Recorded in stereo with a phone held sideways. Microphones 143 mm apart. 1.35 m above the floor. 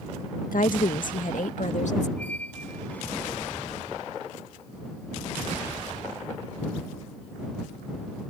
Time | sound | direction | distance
0.5 | a woman speaking | 80° left | ?
2.2 | a squeak | 10° left (ahead or behind) | ?